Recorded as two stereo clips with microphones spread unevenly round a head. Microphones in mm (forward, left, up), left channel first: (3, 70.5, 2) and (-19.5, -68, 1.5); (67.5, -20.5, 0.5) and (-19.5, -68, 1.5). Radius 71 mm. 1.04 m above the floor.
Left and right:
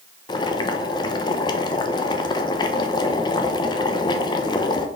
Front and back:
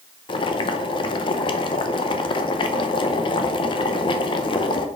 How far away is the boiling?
About 0.8 m.